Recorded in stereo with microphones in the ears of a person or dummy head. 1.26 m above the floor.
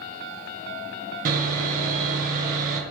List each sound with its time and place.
1.2 s sawing: 50° right (ahead or behind), 2 m